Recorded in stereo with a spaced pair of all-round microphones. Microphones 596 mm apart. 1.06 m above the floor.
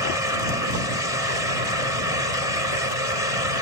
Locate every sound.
0.0 s a fan: 70° left (ahead or behind)